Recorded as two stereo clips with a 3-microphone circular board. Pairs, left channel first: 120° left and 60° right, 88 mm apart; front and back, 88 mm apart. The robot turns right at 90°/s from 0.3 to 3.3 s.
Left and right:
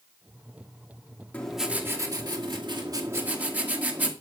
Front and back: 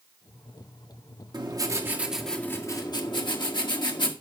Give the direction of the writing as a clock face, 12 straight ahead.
6 o'clock.